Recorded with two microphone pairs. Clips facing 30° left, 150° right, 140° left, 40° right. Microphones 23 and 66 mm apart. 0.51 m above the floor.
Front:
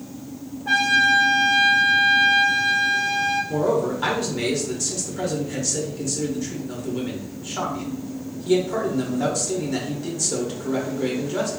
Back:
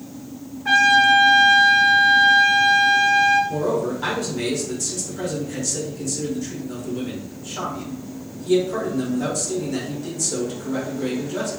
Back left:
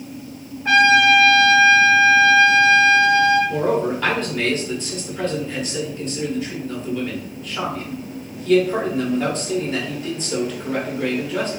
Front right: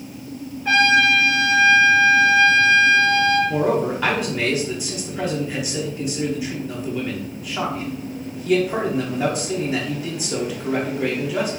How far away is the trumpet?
About 2.5 m.